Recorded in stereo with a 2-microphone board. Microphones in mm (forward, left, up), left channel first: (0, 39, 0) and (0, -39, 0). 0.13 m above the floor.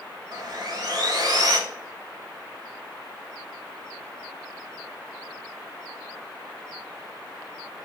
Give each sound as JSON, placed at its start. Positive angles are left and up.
{"t": 0.3, "sound": "sawing", "side_deg": -50, "distance_m": 0.6}